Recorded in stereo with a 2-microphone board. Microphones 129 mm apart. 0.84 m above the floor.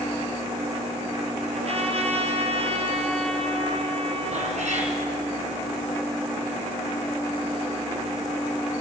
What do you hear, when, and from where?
1.5 s a trumpet: 55° right (ahead or behind), 3 m
4.3 s a cat meowing: 65° right (ahead or behind), 5 m